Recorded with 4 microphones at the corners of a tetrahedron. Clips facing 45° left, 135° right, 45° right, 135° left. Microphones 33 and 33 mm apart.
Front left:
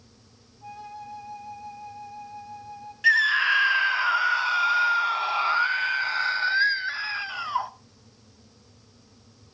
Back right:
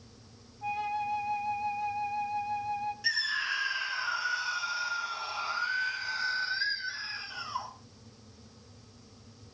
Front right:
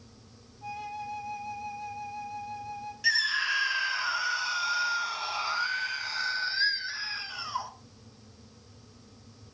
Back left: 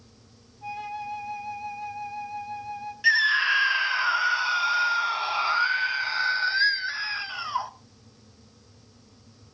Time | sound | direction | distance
0.6 | a flute | 155° right | 1.8 m
3.0 | a scream | 75° left | 1.3 m